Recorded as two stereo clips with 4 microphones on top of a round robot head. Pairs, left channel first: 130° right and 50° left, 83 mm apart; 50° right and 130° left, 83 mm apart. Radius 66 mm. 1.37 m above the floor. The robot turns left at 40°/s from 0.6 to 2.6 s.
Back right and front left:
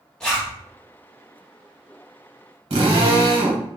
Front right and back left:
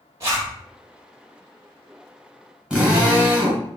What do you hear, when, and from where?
0.2 s a zipper: 160° left, 1.1 m
2.7 s a drill: 50° left, 1.1 m